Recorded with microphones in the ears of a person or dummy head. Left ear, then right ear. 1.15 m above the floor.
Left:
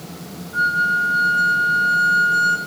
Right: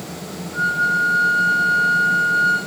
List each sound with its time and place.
0.5 s a flute: 70° left (ahead or behind), 4.5 m